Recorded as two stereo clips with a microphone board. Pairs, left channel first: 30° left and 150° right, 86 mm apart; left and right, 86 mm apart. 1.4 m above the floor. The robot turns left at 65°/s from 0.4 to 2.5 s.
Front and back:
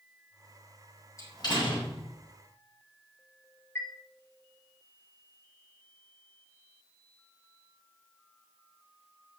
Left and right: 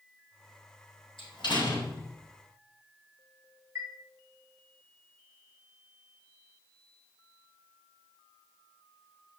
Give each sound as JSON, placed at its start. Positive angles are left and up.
{"t": 1.2, "sound": "a door slam", "azimuth_deg": 80, "distance_m": 5.5}
{"t": 3.8, "sound": "a chime", "azimuth_deg": -35, "distance_m": 2.5}